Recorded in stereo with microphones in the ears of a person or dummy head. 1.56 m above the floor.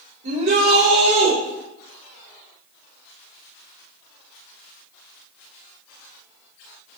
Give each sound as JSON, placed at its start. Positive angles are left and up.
{"t": 0.2, "sound": "a shout", "side_deg": -65, "distance_m": 3.5}